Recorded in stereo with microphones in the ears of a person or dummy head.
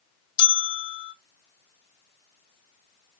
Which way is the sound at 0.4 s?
25° left (ahead or behind).